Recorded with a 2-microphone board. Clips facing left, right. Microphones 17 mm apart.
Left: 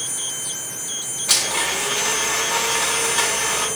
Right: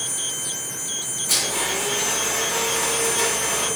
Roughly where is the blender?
Left.